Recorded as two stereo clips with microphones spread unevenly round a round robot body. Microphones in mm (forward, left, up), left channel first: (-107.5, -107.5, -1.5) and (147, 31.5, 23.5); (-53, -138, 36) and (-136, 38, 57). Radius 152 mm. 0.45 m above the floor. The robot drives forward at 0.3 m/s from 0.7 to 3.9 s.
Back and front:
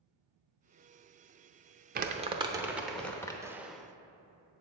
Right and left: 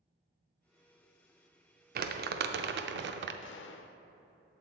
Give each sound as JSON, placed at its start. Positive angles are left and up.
{"t": 1.9, "sound": "crumpling", "azimuth_deg": 85, "distance_m": 0.5}
{"t": 3.4, "sound": "a gunshot", "azimuth_deg": -55, "distance_m": 0.6}